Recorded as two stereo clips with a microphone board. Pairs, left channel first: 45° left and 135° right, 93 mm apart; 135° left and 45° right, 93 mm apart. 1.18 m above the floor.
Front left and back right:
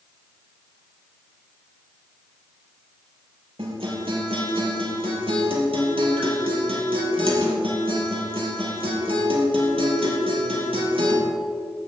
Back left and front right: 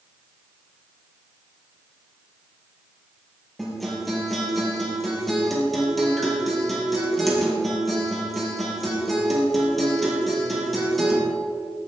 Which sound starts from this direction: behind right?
A guitar, at 3.6 s.